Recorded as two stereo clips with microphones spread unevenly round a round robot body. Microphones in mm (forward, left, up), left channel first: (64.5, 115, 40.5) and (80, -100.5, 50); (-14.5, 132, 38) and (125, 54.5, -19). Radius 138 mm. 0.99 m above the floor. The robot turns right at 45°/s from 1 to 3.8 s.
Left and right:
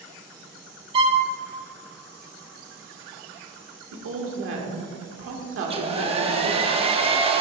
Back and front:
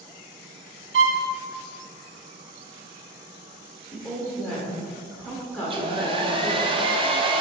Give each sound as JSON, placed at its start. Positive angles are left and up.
{"t": 0.9, "sound": "a violin", "azimuth_deg": -30, "distance_m": 1.1}
{"t": 3.9, "sound": "a woman speaking", "azimuth_deg": -105, "distance_m": 1.4}
{"t": 5.6, "sound": "a hair dryer", "azimuth_deg": -25, "distance_m": 0.9}